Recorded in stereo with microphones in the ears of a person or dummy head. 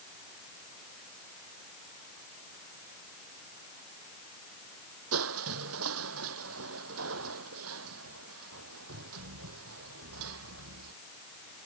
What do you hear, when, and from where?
5.1 s crushing: 85° right